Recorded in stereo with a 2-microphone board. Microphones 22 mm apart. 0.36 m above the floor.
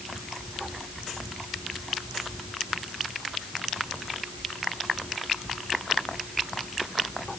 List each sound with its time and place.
Only background noise.